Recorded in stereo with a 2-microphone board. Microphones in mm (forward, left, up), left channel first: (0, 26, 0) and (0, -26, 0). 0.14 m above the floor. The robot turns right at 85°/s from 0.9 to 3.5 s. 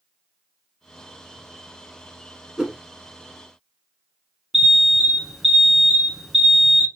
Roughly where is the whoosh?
Centre.